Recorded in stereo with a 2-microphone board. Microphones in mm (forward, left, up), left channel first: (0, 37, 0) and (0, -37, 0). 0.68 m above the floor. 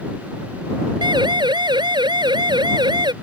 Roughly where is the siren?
Right.